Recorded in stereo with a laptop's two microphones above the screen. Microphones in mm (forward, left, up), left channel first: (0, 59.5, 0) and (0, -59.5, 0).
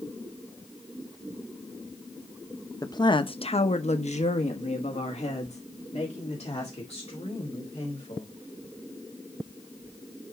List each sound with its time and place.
2.8 s a woman speaking: 30° left (ahead or behind), 0.8 m; by 8.3 s 55° left (ahead or behind), 3 m